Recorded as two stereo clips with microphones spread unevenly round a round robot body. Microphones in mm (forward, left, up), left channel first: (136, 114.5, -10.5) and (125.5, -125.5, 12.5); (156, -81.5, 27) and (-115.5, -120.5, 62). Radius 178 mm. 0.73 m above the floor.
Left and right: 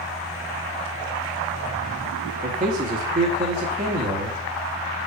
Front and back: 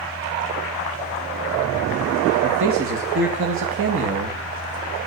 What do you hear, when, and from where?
2.4 s a man speaking: 150° right, 1.1 m